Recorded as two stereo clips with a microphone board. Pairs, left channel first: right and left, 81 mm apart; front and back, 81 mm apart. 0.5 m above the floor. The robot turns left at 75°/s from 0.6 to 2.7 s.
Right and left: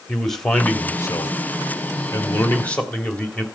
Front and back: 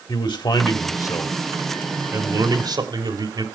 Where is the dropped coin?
I don't hear a dropped coin.